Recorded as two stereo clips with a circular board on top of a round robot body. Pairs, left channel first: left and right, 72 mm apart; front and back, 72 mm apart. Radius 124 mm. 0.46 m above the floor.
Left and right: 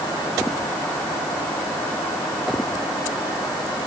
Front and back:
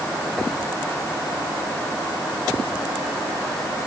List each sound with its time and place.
Only background noise.